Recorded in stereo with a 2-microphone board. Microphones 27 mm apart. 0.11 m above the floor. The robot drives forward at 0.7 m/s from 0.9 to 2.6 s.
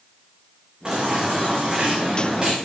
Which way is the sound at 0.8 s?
25° right (ahead or behind).